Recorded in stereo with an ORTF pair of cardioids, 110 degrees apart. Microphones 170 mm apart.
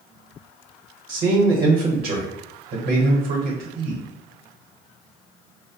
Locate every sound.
1.1 s a man speaking: 60° right, 0.8 m